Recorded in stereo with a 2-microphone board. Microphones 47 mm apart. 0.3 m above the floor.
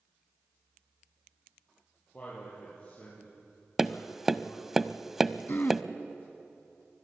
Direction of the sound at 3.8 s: 5° right (ahead or behind).